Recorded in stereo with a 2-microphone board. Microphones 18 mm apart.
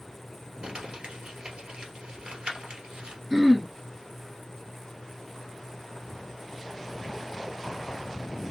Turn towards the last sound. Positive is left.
turn(degrees=-15)  # may be behind; listen again after turning